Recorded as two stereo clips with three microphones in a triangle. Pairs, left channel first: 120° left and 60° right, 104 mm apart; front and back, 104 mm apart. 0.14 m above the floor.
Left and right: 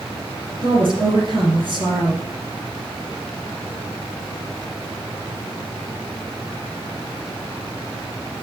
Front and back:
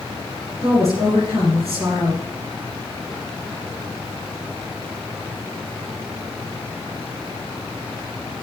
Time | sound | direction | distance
0.6 | a woman speaking | 50° right | 2.5 m